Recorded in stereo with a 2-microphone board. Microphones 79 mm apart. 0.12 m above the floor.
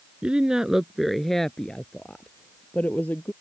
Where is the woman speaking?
15° right (ahead or behind); by 3.3 s 20° left (ahead or behind).